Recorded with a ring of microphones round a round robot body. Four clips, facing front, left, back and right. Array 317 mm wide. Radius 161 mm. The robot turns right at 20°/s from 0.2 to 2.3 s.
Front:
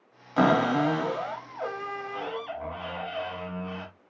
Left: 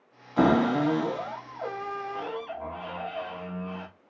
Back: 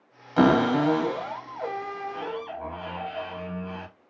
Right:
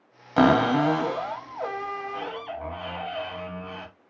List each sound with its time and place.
0.4 s a cupboard door: 90° right, 1.1 m; by 3.9 s 50° right, 1.1 m